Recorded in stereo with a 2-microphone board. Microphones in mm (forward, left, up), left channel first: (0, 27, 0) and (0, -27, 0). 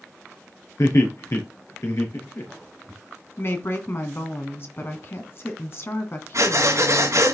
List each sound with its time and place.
0.8 s laughter: 65° left (ahead or behind), 4 m; by 3.0 s 50° left (ahead or behind), 4.5 m
3.4 s a woman speaking: 45° left (ahead or behind), 2.5 m
6.3 s breathing: 60° right (ahead or behind), 2.5 m